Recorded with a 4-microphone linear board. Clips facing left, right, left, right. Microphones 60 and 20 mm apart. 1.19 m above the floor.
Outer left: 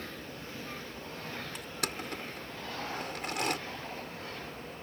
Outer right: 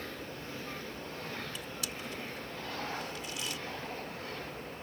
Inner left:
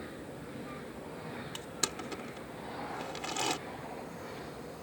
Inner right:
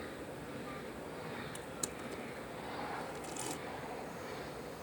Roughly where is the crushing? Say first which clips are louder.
Outer left 3 dB, inner left 6 dB; left.